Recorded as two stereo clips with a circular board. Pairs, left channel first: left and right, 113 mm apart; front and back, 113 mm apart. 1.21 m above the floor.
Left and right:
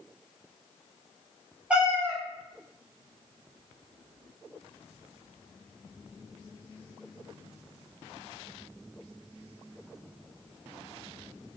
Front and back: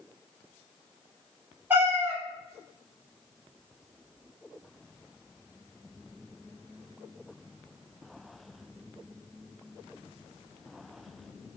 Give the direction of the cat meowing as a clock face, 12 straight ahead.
5 o'clock.